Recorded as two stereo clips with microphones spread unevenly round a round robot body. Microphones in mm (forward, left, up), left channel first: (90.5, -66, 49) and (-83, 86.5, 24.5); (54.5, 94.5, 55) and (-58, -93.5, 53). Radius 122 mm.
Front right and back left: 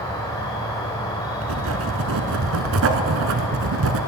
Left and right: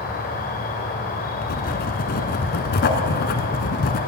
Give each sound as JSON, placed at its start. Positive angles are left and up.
{"t": 0.0, "sound": "an insect", "azimuth_deg": 35, "distance_m": 1.6}
{"t": 1.4, "sound": "writing", "azimuth_deg": 105, "distance_m": 0.9}